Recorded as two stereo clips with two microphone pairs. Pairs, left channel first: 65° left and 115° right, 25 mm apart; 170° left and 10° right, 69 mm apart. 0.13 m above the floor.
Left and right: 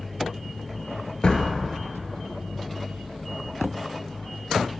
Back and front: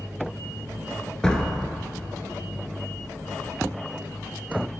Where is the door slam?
95° left, 1.4 m.